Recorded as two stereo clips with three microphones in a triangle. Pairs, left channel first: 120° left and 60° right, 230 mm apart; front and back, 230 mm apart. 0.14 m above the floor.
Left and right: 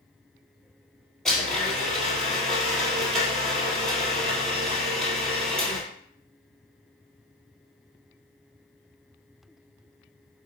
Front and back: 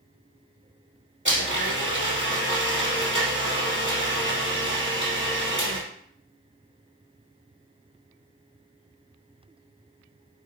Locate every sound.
1.2 s a blender: 155° right, 3.5 m